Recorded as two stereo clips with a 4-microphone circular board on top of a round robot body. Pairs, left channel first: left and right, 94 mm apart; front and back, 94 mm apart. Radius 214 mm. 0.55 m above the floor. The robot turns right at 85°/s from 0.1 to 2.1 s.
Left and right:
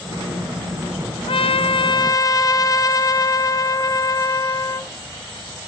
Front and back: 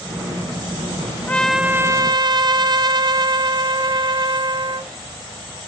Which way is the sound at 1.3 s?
70° left.